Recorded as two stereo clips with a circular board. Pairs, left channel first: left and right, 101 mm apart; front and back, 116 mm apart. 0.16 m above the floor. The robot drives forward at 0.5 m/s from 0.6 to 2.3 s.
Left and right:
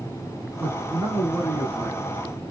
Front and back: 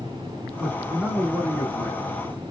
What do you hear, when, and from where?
0.6 s a man speaking: 90° right, 1.1 m; by 2.1 s 150° right, 1.4 m